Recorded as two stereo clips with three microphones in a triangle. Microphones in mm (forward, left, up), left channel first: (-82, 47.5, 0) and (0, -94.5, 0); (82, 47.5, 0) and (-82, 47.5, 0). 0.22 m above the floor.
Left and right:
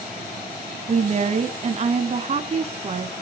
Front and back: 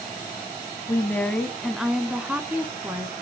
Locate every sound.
0.9 s a woman speaking: 65° right, 1.3 m; by 3.1 s 110° right, 2.5 m